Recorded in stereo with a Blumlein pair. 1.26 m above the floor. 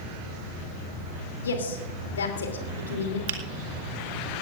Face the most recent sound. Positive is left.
turn(degrees=-60)